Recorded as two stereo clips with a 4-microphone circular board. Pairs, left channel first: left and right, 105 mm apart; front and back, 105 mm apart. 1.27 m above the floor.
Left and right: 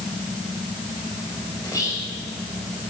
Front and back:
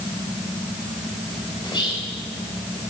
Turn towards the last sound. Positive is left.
turn(degrees=35)